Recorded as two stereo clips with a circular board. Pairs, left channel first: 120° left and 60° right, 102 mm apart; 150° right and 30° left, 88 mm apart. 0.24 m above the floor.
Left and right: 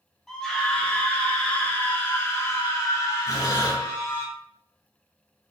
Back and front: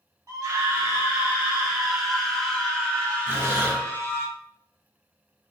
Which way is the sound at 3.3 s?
85° left.